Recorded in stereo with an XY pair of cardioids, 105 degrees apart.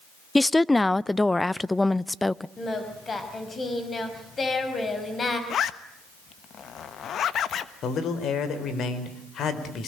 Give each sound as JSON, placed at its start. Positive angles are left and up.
{"t": 0.3, "sound": "a woman speaking", "azimuth_deg": 15, "distance_m": 0.6}
{"t": 2.6, "sound": "singing", "azimuth_deg": 30, "distance_m": 5.0}
{"t": 5.5, "sound": "a zipper", "azimuth_deg": 55, "distance_m": 1.2}
{"t": 7.8, "sound": "a man speaking", "azimuth_deg": 60, "distance_m": 4.0}